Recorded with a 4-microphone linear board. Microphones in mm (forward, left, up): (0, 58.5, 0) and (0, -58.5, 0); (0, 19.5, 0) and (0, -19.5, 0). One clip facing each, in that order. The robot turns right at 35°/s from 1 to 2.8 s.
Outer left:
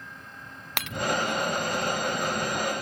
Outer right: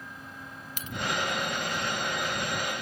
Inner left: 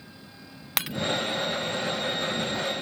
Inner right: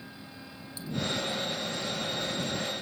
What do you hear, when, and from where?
0.8 s breaking glass: 75° left (ahead or behind)